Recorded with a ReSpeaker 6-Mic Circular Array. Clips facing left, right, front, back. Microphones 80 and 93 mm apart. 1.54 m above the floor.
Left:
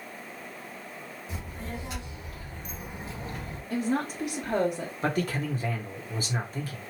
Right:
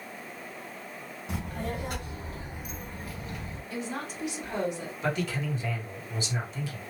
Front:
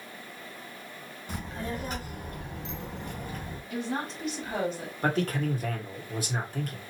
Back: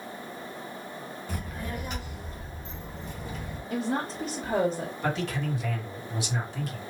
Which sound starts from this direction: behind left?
A woman speaking, at 3.7 s.